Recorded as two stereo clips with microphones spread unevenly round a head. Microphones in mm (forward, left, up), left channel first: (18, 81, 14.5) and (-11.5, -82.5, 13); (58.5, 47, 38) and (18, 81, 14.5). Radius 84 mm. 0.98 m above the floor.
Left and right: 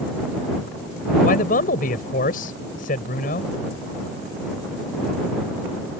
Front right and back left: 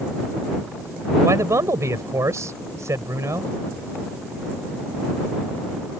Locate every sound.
1.2 s a man speaking: 115° left